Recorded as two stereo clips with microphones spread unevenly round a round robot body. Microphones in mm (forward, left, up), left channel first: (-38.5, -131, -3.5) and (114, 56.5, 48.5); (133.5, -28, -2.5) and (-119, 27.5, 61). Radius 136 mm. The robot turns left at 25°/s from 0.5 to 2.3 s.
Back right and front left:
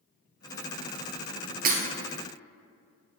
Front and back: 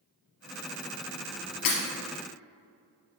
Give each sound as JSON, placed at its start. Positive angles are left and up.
{"t": 1.6, "sound": "breaking glass", "azimuth_deg": 5, "distance_m": 2.0}